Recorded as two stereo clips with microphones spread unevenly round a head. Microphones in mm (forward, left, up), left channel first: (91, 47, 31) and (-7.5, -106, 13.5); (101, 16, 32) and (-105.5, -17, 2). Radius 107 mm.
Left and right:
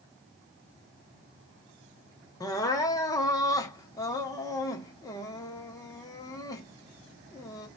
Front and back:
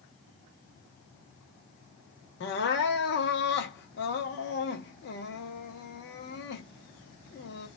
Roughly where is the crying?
Ahead.